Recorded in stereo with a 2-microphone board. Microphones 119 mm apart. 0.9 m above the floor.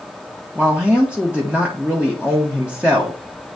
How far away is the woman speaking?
About 1.3 m.